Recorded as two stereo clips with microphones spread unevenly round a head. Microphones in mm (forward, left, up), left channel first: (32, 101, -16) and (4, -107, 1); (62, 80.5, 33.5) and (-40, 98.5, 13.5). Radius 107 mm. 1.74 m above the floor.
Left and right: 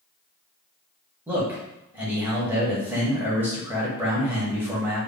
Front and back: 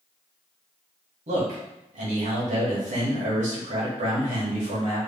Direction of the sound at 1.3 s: 175° right.